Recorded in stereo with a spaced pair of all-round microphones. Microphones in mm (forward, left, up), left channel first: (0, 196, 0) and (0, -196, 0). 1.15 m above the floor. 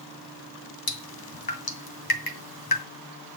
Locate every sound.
0.9 s dripping: 65° left (ahead or behind), 1.8 m